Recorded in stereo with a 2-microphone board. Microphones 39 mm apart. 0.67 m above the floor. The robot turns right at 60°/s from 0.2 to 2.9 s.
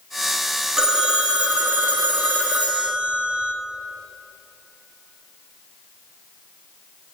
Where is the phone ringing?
160° right, 0.7 m; by 3.5 s 30° right, 0.7 m.